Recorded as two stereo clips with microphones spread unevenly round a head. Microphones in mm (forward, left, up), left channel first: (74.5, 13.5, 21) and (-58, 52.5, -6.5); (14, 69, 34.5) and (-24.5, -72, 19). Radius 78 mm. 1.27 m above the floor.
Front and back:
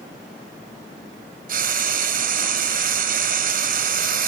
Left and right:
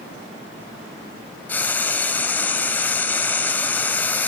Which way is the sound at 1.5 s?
150° left.